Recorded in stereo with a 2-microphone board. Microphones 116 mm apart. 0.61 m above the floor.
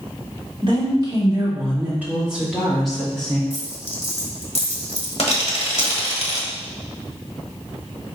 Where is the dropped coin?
60° left (ahead or behind), 1.0 m.